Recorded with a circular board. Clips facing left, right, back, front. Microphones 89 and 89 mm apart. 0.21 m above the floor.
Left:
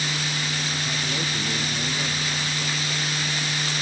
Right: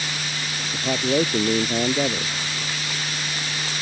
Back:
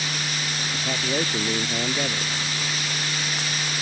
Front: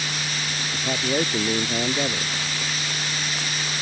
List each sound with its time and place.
0.7 s a man speaking: 80° right